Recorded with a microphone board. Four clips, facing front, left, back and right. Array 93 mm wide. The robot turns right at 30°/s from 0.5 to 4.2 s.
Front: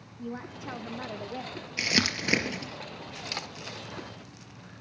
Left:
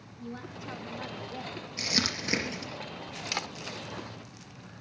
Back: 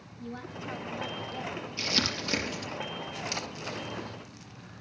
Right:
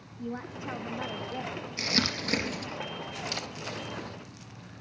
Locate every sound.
0.2 s a woman speaking: 50° right, 0.9 m; by 1.7 s 15° right, 0.9 m
1.8 s crumpling: 5° right, 4 m; by 2.7 s 25° left, 4 m
3.3 s a camera shutter: 75° left, 1.6 m; by 4.8 s 100° left, 1.6 m